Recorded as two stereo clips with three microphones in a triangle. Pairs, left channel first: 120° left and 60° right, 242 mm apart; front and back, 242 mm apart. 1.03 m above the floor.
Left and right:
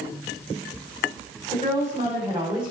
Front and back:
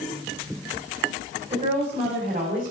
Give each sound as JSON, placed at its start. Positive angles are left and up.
{"t": 1.5, "sound": "a woman speaking", "azimuth_deg": -120, "distance_m": 4.5}